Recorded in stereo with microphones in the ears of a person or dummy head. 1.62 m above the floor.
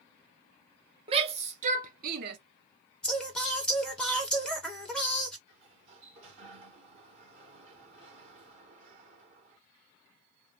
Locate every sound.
1.1 s a shout: 30° right (ahead or behind), 1.3 m; by 2.4 s 65° right (ahead or behind), 1.1 m
3.0 s singing: 5° left (ahead or behind), 1.4 m
5.5 s a sliding door: 40° right (ahead or behind), 1.6 m